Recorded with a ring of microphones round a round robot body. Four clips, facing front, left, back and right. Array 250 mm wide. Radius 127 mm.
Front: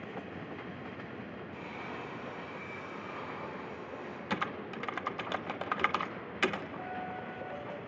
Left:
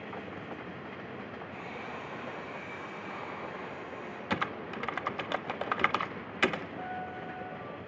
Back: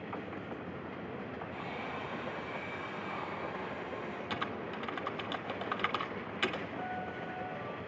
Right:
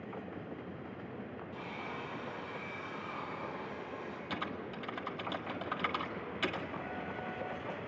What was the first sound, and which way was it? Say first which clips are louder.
A hair dryer: even, back 1 dB; 130° left.